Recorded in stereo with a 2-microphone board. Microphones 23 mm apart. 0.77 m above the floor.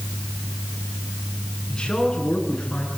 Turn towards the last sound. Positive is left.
turn(degrees=35)  # may be behind; listen again after turning